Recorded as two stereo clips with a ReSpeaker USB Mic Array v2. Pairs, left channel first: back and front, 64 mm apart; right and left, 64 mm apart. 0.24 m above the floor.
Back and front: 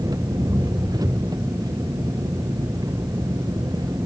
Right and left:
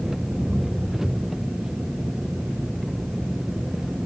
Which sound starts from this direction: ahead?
An engine running, at 0.0 s.